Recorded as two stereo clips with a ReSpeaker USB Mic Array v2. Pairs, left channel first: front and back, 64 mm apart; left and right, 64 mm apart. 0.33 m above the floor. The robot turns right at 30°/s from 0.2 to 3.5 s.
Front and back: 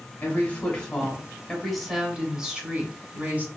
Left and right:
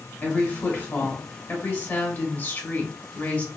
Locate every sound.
0.2 s a woman speaking: 45° left, 1.0 m; by 3.5 s 140° left, 1.0 m